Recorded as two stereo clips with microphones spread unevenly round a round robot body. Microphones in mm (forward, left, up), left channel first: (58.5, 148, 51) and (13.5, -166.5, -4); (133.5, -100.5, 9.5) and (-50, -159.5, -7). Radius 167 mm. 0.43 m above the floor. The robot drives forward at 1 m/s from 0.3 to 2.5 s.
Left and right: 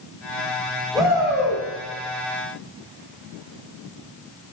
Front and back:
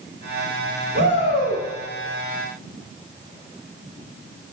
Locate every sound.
0.9 s a shout: 175° left, 2.5 m; by 1.6 s straight behind, 3 m